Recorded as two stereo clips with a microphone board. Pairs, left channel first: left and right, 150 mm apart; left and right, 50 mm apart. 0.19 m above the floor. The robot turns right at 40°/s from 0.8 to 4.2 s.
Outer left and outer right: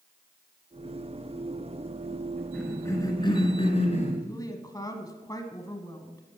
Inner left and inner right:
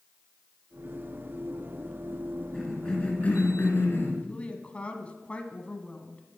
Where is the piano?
No piano in this recording.